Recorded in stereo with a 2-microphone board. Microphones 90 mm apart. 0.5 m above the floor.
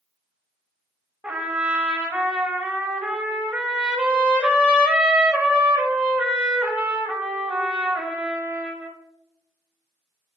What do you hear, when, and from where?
1.2 s a trumpet: 15° right (ahead or behind), 0.6 m